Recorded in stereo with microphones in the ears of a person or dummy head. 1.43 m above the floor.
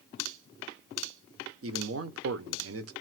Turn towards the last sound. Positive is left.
turn(degrees=-75)  # may be behind; listen again after turning